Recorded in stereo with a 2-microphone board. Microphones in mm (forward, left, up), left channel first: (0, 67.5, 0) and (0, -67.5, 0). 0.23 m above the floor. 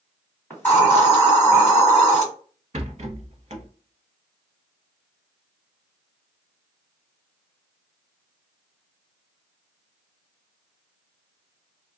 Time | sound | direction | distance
0.5 | a hiss | 15° left (ahead or behind) | 1.9 m
2.7 | a rattle | 55° right (ahead or behind) | 0.6 m